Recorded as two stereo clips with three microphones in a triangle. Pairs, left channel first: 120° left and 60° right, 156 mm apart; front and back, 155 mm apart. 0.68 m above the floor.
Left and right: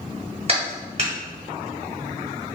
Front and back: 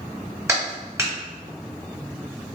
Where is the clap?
110° right, 1.5 m.